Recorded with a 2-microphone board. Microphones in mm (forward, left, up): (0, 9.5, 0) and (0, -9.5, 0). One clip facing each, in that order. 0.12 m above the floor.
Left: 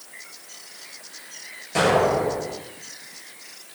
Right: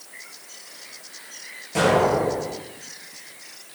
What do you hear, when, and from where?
1.8 s an explosion: 15° left (ahead or behind), 2.5 m